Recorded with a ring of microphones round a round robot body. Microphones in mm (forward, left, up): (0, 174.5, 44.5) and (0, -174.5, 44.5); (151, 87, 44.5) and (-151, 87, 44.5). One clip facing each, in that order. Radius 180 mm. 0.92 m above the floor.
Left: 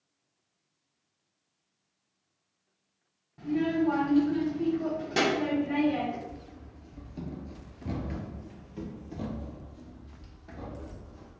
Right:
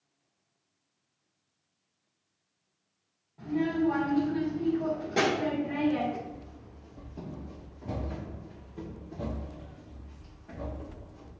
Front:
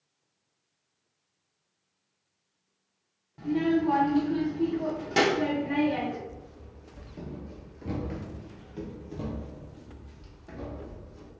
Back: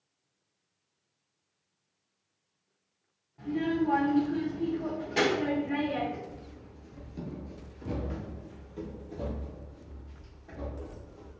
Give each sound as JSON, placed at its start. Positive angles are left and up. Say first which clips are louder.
{"t": 3.4, "sound": "a child speaking", "louder": "left 1 dB, front 4 dB", "azimuth_deg": 30, "distance_m": 1.3}
{"t": 6.3, "sound": "running footsteps", "louder": "right 1 dB, front 1 dB", "azimuth_deg": 175, "distance_m": 1.0}